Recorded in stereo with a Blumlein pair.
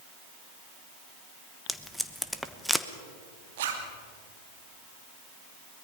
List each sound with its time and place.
1.7 s tape being pulled: straight ahead, 1.0 m
3.6 s a zipper: 55° right, 3 m